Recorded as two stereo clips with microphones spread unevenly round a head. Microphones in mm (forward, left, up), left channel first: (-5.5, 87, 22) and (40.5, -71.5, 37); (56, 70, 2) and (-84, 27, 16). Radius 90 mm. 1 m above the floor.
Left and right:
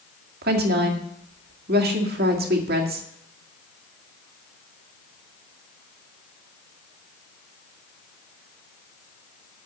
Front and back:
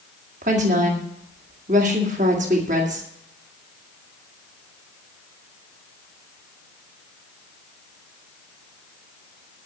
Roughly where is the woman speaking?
Right.